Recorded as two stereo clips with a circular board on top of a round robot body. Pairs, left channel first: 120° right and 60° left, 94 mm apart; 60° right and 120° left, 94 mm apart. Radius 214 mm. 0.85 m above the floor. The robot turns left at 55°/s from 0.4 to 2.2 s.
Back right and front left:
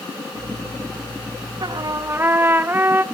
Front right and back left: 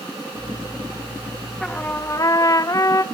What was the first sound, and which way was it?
A trumpet, 25° left.